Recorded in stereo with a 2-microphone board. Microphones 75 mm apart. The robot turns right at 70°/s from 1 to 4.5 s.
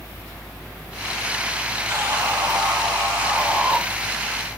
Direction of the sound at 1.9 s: 135° right.